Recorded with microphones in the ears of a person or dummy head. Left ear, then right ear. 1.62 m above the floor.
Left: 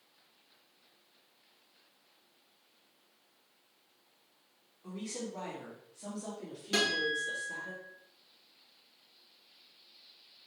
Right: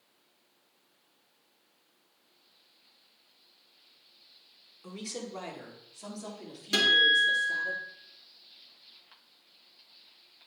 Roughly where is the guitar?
Right.